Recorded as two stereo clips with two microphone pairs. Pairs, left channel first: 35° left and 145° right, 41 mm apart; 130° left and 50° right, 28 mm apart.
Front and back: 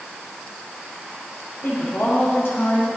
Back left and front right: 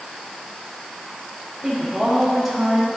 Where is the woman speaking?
35° left, 5.5 m.